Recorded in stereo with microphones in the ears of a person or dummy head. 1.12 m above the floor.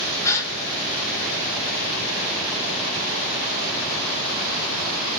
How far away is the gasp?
About 1.2 m.